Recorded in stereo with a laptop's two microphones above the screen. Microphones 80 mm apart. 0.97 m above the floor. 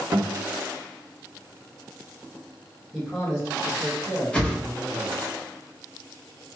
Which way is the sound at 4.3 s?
15° left (ahead or behind).